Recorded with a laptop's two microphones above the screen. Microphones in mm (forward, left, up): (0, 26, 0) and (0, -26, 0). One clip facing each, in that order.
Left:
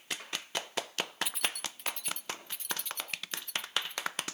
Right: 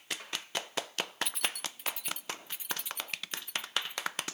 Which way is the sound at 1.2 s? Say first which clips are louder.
Even; 5° left (ahead or behind).